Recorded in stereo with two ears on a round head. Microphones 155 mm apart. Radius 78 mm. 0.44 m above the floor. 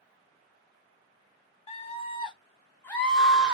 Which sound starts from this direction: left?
A scream, at 1.7 s.